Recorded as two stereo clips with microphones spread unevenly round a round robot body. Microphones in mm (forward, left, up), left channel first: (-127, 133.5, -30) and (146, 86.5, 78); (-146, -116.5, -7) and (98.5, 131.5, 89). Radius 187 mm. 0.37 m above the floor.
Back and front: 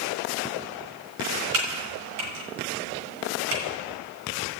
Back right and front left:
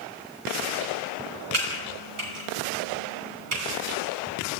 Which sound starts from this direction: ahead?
Typing on a keyboard, at 1.5 s.